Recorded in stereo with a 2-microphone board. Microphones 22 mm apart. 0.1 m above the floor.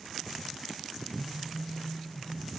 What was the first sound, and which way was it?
A phone buzzing, 35° right (ahead or behind).